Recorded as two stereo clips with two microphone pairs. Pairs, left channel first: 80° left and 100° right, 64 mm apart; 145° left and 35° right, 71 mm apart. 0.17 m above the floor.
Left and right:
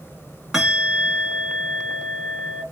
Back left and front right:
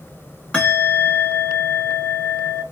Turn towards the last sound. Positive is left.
turn(degrees=-165)